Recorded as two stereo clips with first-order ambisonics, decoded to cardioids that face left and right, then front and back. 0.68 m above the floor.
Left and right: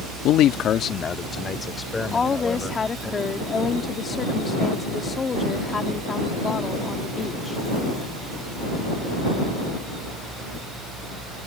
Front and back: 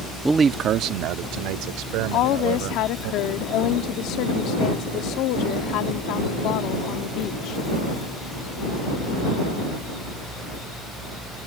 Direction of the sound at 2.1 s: 20° left.